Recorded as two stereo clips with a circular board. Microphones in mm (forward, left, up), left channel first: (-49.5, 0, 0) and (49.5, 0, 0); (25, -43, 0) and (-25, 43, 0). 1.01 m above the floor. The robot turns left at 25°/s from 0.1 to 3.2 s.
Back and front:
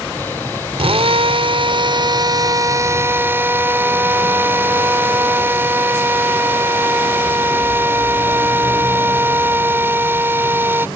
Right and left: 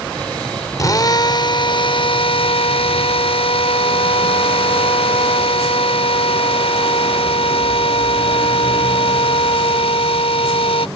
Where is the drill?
5° right; by 10.9 s 65° right.